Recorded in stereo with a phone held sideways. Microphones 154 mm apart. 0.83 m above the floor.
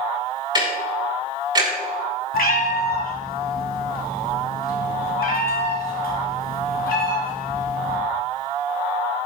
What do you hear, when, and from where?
0.6 s ticking: 30° right (ahead or behind), 6 m
2.3 s a cat meowing: 80° left, 1.9 m